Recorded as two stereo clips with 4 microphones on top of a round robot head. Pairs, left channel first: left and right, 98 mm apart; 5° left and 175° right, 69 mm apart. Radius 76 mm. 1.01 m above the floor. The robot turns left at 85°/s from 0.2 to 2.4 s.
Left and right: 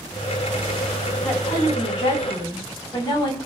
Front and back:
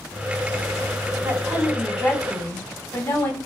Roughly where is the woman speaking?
Behind left.